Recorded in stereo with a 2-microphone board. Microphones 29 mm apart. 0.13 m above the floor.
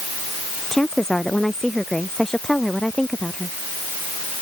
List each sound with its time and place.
0.7 s a woman speaking: 20° left (ahead or behind)